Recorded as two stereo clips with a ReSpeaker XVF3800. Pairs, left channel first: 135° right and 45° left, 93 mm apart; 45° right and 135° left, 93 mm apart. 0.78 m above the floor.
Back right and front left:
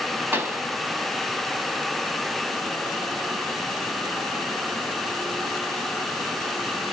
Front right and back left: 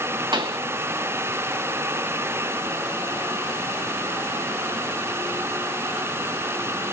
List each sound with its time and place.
0.3 s a pop: 110° left, 2.5 m